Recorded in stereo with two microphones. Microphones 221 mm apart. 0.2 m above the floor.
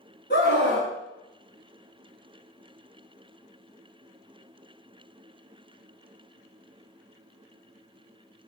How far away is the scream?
About 1.6 m.